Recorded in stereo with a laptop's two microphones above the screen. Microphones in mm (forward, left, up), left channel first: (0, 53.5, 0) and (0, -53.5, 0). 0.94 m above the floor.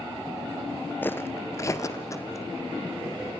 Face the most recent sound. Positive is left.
turn(degrees=30)  # may be behind; listen again after turning